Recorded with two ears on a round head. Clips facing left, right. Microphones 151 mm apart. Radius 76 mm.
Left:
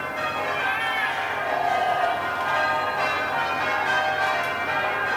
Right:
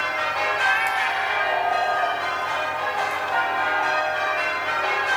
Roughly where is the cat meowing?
Left.